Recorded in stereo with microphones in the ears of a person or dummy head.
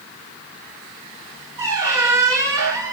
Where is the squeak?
20° right (ahead or behind), 1.2 m.